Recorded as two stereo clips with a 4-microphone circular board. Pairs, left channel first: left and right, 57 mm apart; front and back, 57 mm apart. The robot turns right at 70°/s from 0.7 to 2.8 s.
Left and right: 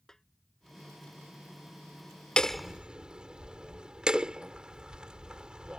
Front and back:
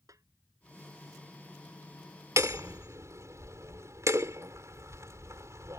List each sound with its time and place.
0.1 s a snare drum: 175° left
2.4 s hammering: 165° left; by 5.8 s 160° right